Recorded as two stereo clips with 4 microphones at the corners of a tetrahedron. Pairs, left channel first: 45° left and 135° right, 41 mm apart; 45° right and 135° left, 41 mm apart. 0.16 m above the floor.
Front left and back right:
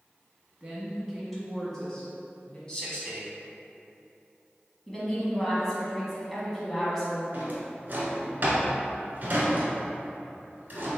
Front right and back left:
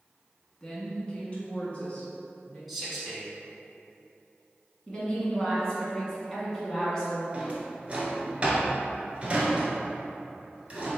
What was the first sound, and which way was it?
A woman speaking, 95° right.